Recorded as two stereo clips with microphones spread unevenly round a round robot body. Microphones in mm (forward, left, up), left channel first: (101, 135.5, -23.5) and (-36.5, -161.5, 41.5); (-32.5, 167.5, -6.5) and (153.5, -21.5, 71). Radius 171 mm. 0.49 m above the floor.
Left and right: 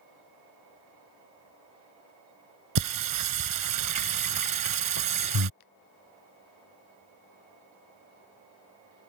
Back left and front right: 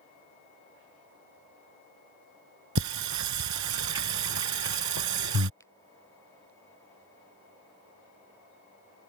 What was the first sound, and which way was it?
Singing, 90° right.